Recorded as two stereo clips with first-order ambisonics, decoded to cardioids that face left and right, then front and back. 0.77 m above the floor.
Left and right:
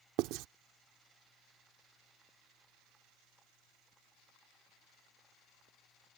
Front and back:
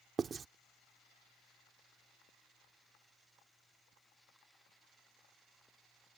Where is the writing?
115° right.